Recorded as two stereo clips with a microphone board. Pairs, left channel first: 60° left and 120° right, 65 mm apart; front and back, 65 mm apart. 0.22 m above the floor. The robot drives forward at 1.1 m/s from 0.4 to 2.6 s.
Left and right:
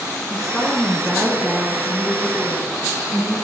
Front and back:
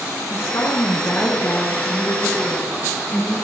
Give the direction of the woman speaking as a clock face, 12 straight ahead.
1 o'clock.